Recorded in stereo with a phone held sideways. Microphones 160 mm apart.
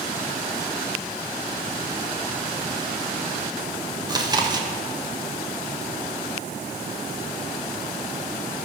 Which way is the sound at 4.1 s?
25° right (ahead or behind).